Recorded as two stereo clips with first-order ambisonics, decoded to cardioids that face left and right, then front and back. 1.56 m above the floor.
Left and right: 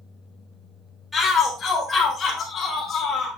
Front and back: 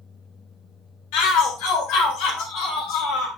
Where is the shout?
5° left, 2 m; by 3.3 s 20° left, 3.5 m.